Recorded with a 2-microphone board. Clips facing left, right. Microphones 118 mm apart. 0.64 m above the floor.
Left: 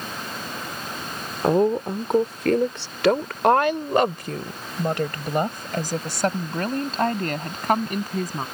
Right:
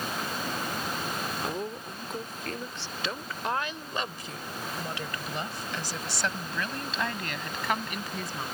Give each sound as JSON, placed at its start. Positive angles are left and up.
{"t": 1.4, "sound": "a woman speaking", "side_deg": 60}